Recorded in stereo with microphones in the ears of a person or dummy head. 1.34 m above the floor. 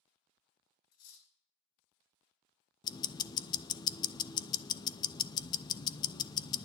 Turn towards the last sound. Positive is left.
turn(degrees=20)  # may be behind; listen again after turning